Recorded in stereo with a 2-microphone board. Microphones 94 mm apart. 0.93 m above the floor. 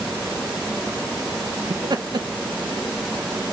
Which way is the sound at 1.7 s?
50° right (ahead or behind).